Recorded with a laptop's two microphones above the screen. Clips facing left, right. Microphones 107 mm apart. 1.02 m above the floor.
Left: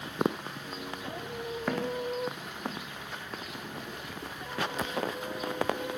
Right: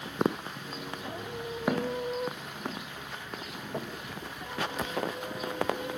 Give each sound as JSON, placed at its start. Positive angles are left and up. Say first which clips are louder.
{"t": 1.7, "sound": "footsteps", "louder": "right 2 dB", "side_deg": -10, "distance_m": 3.5}
{"t": 3.7, "sound": "knocking", "louder": "right 4 dB", "side_deg": -75, "distance_m": 5.5}